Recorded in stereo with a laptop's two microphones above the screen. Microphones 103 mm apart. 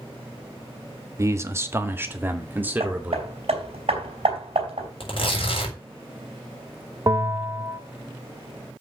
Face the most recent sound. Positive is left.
turn(degrees=-35)  # may be behind; listen again after turning